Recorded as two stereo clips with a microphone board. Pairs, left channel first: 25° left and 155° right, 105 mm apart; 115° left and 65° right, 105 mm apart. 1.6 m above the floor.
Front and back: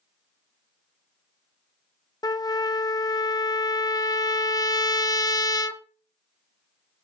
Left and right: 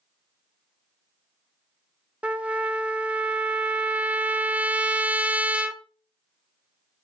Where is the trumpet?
5° left, 0.5 m.